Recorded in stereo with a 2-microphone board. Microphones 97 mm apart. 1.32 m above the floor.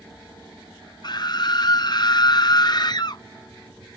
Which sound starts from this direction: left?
A scream, at 1.0 s.